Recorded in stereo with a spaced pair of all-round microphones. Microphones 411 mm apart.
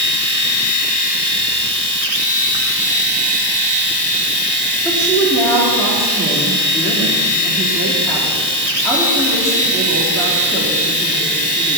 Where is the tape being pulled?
I don't hear tape being pulled.